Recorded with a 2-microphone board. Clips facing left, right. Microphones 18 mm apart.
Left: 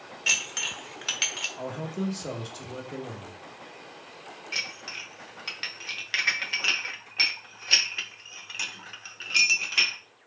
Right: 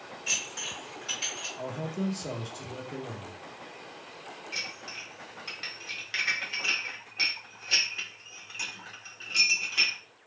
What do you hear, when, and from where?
0.3 s dishes clattering: 65° left (ahead or behind), 0.8 m
1.6 s a man speaking: 20° left (ahead or behind), 0.7 m
4.5 s dishes clattering: 30° left (ahead or behind), 0.7 m